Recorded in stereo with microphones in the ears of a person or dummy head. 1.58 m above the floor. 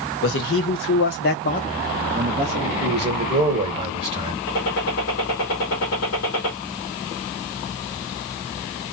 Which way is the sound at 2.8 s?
25° right (ahead or behind).